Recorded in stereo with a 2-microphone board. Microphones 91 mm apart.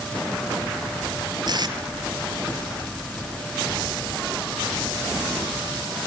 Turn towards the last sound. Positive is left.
turn(degrees=-50)  # may be behind; listen again after turning